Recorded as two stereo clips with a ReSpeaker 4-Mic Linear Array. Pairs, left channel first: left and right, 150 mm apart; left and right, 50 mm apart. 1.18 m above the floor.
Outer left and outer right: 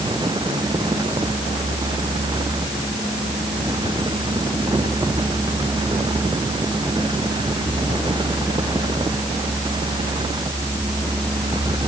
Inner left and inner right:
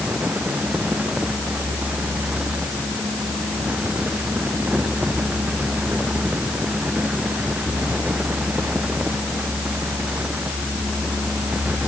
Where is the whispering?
No whispering in this recording.